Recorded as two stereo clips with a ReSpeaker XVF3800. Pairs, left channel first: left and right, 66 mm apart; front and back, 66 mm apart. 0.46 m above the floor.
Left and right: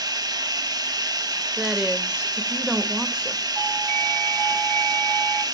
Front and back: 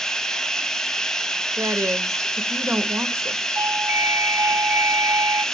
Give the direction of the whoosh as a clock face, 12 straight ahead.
No whoosh in this recording.